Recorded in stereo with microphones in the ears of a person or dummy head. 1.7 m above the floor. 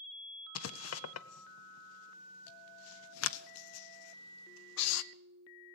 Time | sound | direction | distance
0.6 | writing | 85° left | 0.6 m